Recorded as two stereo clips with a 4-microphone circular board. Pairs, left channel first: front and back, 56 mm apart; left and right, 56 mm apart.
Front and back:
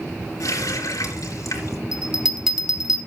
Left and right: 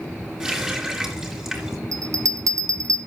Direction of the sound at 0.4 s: 15° right.